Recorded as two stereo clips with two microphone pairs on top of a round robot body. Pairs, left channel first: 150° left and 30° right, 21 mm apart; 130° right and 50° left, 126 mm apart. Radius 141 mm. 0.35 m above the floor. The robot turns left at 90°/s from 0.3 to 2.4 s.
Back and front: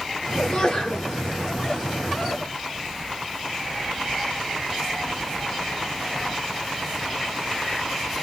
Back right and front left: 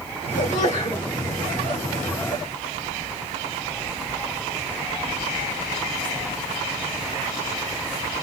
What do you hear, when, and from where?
0.4 s a sneeze: 130° right, 2.5 m; by 1.1 s 170° left, 2.5 m